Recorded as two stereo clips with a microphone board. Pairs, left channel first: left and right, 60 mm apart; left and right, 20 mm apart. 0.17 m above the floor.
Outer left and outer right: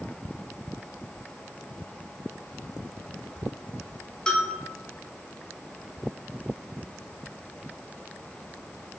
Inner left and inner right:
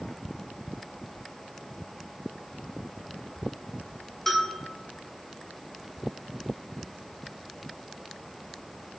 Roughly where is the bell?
Centre.